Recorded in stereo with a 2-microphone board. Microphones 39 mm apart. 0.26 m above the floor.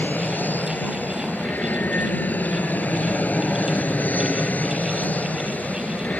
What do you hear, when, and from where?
0.0 s an aircraft: 50° left (ahead or behind); by 6.2 s 45° left (ahead or behind)